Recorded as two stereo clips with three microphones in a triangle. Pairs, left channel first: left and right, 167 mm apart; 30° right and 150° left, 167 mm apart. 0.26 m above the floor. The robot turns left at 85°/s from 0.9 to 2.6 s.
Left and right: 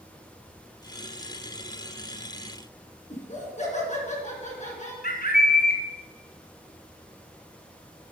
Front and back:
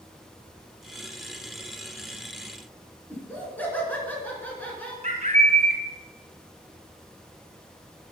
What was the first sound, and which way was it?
Laughter, 50° left.